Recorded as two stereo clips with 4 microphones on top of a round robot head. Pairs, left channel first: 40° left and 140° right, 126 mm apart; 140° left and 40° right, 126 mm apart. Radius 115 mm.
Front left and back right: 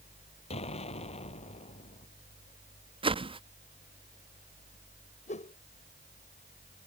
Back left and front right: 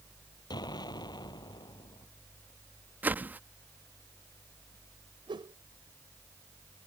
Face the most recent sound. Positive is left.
turn(degrees=15)